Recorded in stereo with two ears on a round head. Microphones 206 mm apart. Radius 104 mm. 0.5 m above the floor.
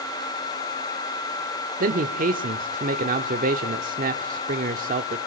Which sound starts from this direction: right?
A man speaking, at 1.8 s.